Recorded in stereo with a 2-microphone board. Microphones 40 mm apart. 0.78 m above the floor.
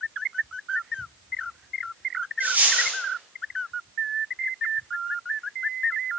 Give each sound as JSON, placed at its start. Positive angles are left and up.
{"t": 2.4, "sound": "a dropped coin", "side_deg": -50, "distance_m": 4.0}